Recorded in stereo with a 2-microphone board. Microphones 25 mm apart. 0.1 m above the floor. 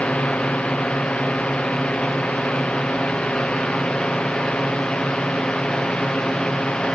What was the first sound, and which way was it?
A drone, 60° left (ahead or behind).